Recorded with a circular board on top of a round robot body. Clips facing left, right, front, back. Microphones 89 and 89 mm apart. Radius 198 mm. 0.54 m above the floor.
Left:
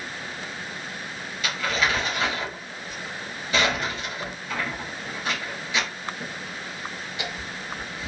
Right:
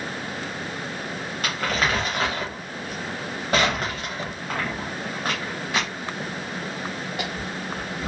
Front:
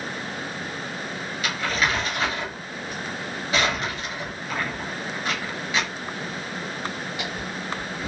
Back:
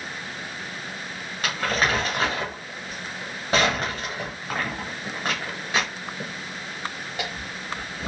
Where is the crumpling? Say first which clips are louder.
Even, back 1 dB; 130° right, 0.6 m.